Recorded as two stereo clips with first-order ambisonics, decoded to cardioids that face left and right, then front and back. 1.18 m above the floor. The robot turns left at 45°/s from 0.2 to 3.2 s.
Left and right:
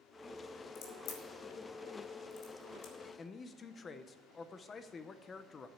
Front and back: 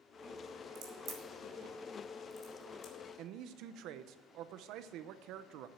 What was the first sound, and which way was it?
A crack, 145° left.